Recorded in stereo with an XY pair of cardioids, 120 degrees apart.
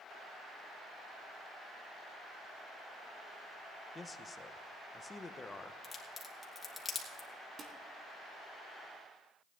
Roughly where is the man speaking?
Ahead.